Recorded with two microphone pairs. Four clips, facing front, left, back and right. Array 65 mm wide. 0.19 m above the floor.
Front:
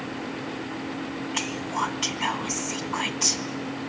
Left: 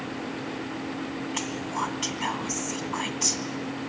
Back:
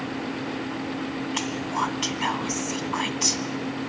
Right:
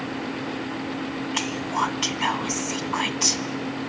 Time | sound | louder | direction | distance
1.3 | whispering | right 6 dB, even | 90° right | 1.0 m